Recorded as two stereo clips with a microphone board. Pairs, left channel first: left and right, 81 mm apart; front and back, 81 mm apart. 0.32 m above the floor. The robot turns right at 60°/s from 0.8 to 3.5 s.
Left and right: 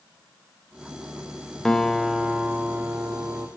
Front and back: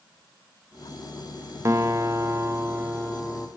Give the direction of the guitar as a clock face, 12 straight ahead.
6 o'clock.